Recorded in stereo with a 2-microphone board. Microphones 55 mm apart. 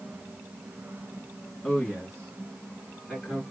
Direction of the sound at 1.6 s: 10° left (ahead or behind).